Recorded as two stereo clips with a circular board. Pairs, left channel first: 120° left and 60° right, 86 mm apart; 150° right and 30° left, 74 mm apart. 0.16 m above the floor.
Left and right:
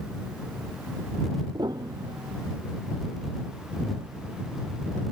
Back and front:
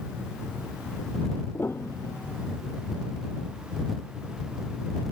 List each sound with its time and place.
1.5 s a piano: 95° right